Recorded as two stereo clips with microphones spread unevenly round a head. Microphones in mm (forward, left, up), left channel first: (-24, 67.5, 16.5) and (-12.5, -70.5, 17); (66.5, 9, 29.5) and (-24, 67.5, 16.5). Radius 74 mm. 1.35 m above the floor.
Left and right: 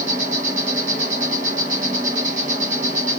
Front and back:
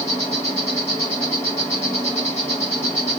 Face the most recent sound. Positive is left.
turn(degrees=-105)